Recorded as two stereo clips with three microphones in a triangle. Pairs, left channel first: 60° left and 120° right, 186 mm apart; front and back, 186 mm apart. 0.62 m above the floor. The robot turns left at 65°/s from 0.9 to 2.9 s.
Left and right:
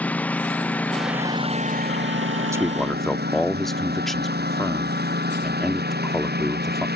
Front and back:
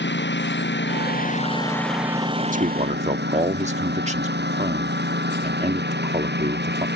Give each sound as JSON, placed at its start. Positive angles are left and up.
{"t": 0.0, "sound": "a lawn mower", "azimuth_deg": -20}
{"t": 2.5, "sound": "a man speaking", "azimuth_deg": 175}